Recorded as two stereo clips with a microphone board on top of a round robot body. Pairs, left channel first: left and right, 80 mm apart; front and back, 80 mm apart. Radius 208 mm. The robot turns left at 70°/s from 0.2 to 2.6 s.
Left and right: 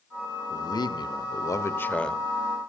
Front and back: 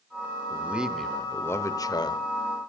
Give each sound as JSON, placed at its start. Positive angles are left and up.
{"t": 0.5, "sound": "a man speaking", "azimuth_deg": 125, "distance_m": 1.7}